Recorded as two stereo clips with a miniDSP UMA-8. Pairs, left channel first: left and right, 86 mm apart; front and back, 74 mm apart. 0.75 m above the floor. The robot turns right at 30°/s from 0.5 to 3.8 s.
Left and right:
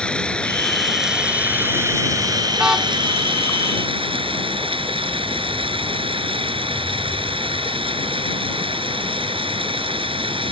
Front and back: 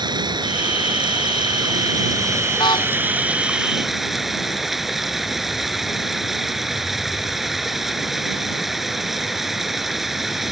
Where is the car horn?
10° right; by 2.9 s straight ahead.